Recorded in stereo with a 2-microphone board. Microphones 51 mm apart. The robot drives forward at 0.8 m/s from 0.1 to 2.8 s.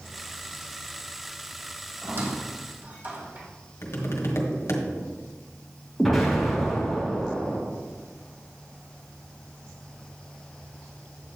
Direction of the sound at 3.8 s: 65° left (ahead or behind).